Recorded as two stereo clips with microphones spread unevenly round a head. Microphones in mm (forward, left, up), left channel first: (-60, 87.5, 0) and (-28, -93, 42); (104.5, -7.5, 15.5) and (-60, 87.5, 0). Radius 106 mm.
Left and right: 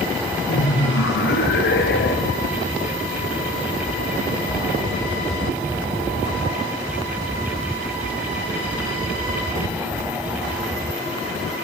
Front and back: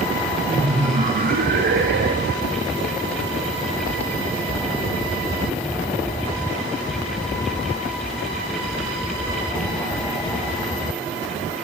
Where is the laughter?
90° left, 1.4 m; by 2.5 s 125° left, 2 m.